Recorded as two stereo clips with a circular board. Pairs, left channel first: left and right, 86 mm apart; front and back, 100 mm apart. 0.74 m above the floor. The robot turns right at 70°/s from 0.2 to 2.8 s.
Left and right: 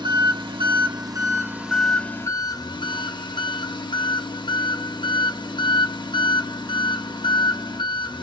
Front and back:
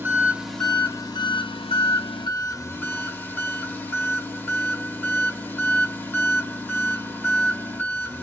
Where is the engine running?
110° right, 0.9 m; by 8.2 s 70° left, 0.9 m.